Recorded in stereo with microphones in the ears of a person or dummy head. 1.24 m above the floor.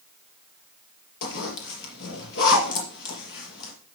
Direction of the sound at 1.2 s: 65° left (ahead or behind).